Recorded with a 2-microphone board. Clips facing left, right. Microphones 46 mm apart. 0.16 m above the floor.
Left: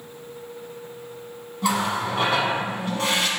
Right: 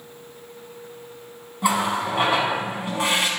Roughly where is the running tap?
Centre.